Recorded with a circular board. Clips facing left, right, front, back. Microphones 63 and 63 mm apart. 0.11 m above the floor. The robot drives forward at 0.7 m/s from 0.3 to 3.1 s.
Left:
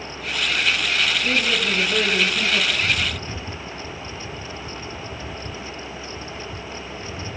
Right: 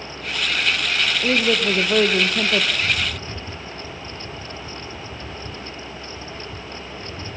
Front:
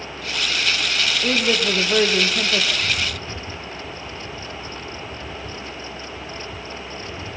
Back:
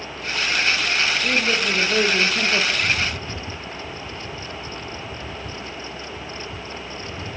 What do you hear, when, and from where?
1.2 s a woman speaking: 65° right, 3 m; by 2.6 s 85° right, 3 m
2.7 s a rattle: 110° left, 1.2 m; by 7.4 s 130° left, 1.3 m